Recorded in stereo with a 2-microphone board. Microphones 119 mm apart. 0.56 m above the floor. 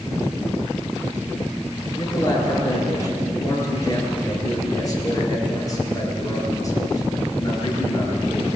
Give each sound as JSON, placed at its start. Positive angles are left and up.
{"t": 2.0, "sound": "a man speaking", "side_deg": 30, "distance_m": 9.0}